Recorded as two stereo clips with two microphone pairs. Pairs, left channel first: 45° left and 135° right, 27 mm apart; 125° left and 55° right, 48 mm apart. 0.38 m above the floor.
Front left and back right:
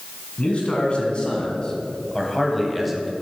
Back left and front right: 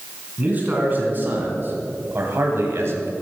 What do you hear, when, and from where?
0.4 s a man speaking: 5° right, 3.5 m; by 3.1 s 60° right, 1.9 m